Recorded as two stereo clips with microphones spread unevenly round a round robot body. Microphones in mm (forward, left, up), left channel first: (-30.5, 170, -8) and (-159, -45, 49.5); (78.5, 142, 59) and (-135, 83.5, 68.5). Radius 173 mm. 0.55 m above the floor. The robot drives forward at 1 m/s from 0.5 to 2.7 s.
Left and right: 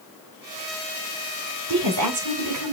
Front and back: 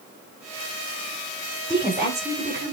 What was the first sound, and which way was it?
A woman speaking, 75° right.